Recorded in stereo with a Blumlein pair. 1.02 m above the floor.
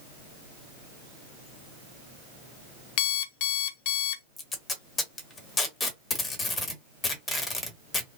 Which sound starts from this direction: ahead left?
An alarm clock, at 3.0 s.